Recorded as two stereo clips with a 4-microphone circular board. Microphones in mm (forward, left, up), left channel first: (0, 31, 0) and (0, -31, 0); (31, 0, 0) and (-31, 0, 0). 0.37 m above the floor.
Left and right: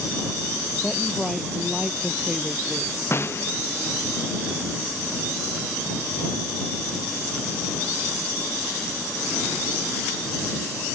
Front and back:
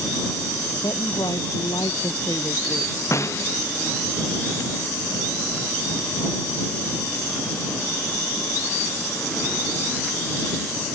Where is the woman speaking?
Straight ahead; by 3.0 s 15° right.